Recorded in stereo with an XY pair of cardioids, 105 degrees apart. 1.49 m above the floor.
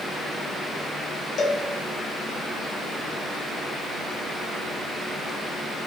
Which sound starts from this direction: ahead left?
A cowbell, at 1.4 s.